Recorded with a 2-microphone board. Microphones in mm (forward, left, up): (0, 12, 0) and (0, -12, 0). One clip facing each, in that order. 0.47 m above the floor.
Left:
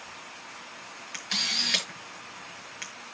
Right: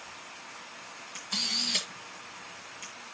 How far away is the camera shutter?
About 7 m.